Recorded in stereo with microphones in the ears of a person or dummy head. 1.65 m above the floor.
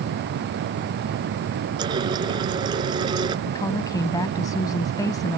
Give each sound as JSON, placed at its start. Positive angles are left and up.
{"t": 1.8, "sound": "a running tap", "side_deg": -25}
{"t": 3.5, "sound": "a woman speaking", "side_deg": 20}